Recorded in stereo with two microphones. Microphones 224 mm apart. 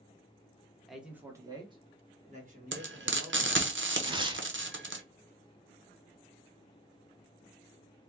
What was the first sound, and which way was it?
A man speaking, centre (ahead or behind).